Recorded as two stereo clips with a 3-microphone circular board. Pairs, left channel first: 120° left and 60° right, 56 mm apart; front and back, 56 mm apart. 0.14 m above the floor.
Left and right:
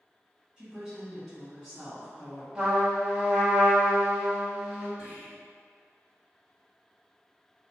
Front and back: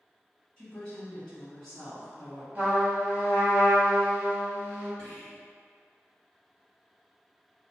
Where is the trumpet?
130° right, 1.0 m.